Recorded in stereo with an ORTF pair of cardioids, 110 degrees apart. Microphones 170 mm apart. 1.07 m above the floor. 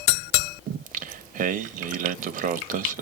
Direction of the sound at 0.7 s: 50° right.